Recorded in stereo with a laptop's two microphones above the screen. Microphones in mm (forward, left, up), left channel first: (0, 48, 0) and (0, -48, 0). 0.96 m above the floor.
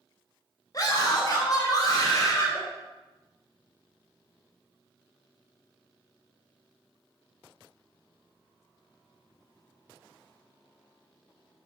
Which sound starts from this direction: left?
A scream, at 0.7 s.